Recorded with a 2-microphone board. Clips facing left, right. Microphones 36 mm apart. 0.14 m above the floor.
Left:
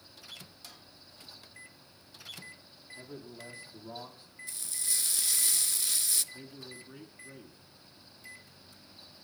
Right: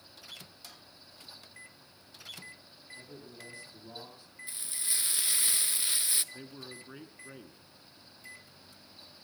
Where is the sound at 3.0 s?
25° left (ahead or behind), 5.5 m; by 4.3 s 20° left (ahead or behind), 6.5 m.